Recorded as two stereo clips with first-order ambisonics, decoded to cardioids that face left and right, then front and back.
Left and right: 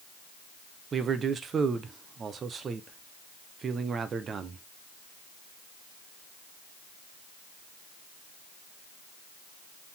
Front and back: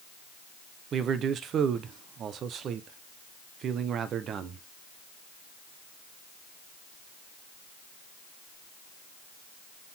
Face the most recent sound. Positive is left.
turn(degrees=-145)